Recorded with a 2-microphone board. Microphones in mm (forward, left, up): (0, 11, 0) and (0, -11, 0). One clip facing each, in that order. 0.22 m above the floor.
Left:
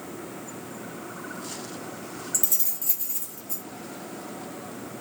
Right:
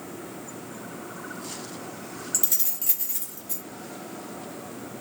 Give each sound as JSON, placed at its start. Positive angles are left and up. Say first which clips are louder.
{"t": 2.3, "sound": "keys jangling", "louder": "right 1 dB", "side_deg": -20, "distance_m": 0.6}